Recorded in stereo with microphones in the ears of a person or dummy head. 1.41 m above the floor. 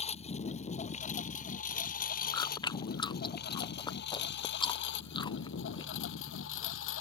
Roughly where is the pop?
No pop in this recording.